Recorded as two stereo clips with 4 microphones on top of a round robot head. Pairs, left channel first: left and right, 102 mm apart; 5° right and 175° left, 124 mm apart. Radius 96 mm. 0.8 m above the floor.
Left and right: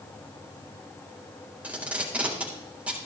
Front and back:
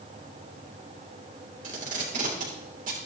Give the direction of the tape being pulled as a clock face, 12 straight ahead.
6 o'clock.